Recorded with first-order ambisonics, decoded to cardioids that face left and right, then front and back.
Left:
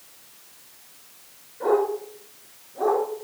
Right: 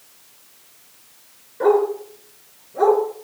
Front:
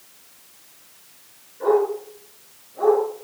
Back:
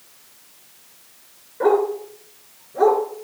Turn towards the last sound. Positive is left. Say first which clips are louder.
# right 5 dB, back 1 dB
turn(degrees=-125)